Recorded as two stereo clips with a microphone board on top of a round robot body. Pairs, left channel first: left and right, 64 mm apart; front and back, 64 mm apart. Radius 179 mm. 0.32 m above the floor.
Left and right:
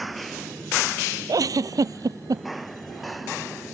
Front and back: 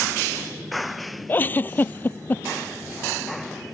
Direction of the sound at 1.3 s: 60° right.